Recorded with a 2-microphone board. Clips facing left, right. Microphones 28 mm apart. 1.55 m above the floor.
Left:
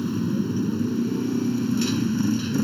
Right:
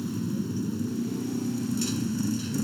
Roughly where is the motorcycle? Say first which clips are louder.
Left 6 dB; left.